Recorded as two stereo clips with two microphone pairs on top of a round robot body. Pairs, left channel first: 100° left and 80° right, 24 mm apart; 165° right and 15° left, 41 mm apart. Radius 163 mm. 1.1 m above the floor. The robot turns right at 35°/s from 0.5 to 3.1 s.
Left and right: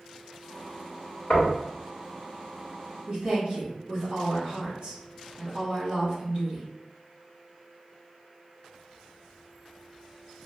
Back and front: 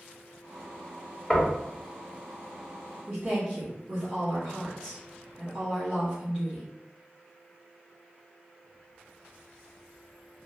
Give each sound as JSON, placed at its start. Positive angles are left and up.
{"t": 1.3, "sound": "knocking", "azimuth_deg": 130, "distance_m": 1.0}
{"t": 3.1, "sound": "a woman speaking", "azimuth_deg": -45, "distance_m": 1.5}